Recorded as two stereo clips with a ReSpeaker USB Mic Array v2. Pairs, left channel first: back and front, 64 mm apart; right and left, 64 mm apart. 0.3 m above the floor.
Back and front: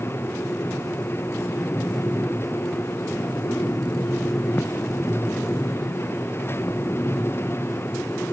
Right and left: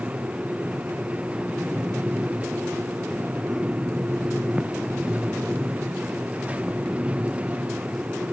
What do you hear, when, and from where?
Only background noise.